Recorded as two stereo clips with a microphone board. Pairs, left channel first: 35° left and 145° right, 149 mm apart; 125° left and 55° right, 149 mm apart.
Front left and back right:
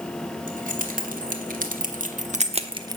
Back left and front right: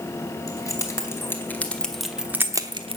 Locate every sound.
0.5 s keys jangling: 170° right, 2.5 m; by 3.0 s 85° right, 1.0 m